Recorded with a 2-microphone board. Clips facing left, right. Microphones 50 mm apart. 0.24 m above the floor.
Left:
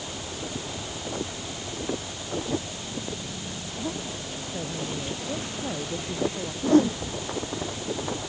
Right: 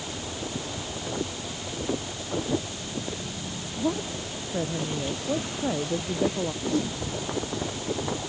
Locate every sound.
3.8 s a woman speaking: 25° right (ahead or behind); by 6.5 s 20° right (ahead or behind)
6.6 s a whoosh: 45° left (ahead or behind)